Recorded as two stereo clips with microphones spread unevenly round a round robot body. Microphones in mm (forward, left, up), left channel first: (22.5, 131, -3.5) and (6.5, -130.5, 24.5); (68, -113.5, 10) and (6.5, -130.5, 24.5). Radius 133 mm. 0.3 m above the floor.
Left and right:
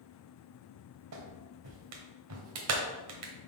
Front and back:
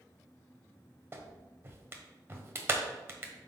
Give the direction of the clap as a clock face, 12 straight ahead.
3 o'clock.